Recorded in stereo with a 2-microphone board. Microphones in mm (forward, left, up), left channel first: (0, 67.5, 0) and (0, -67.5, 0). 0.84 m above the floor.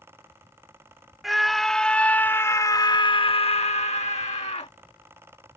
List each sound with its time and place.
1.2 s a scream: centre (ahead or behind); by 4.7 s 55° left (ahead or behind)